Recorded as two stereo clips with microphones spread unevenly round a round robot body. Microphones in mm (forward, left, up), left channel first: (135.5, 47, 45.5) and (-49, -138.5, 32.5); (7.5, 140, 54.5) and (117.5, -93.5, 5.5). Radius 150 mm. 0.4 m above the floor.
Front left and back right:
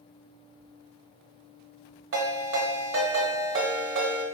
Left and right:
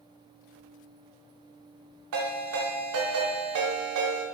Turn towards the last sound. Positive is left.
turn(degrees=-90)